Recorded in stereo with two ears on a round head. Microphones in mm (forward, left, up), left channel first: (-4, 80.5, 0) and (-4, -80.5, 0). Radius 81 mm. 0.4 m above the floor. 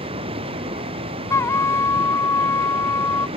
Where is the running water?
30° right (ahead or behind).